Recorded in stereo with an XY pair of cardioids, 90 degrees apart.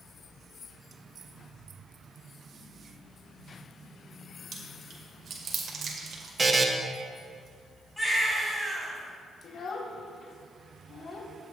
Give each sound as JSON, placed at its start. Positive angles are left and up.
{"t": 4.5, "sound": "chewing", "azimuth_deg": -65, "distance_m": 2.0}
{"t": 6.4, "sound": "a buzzer", "azimuth_deg": -30, "distance_m": 1.1}
{"t": 8.0, "sound": "a baby crying", "azimuth_deg": 10, "distance_m": 3.5}
{"t": 9.4, "sound": "a child speaking", "azimuth_deg": 60, "distance_m": 1.7}